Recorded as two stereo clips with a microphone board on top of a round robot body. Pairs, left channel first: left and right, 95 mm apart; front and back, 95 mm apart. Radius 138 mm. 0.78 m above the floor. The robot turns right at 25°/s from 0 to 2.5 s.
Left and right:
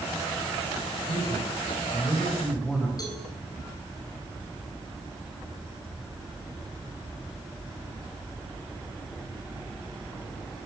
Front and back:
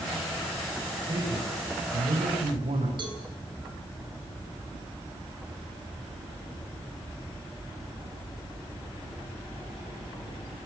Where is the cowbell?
145° left, 9.5 m.